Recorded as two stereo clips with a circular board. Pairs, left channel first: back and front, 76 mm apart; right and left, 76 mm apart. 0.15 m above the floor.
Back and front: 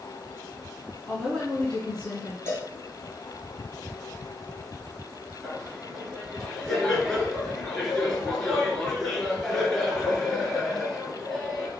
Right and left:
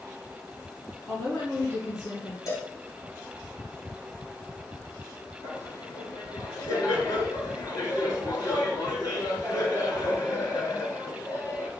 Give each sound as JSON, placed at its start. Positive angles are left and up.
{"t": 1.1, "sound": "a woman speaking", "azimuth_deg": -110, "distance_m": 1.5}
{"t": 2.5, "sound": "a cowbell", "azimuth_deg": -130, "distance_m": 1.9}
{"t": 5.4, "sound": "laughter", "azimuth_deg": -95, "distance_m": 2.0}